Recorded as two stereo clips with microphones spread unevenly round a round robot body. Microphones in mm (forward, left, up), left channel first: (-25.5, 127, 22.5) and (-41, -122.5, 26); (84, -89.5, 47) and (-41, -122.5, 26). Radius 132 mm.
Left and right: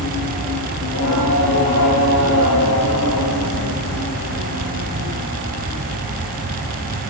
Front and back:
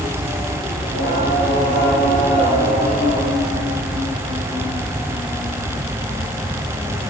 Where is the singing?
40° left, 2.5 m.